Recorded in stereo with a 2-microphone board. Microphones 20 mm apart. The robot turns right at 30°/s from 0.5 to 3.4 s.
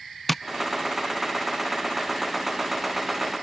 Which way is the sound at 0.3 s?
10° left (ahead or behind).